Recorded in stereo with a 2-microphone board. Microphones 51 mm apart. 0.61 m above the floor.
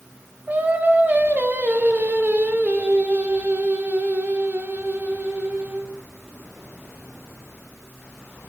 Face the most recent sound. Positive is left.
turn(degrees=-30)  # may be behind; listen again after turning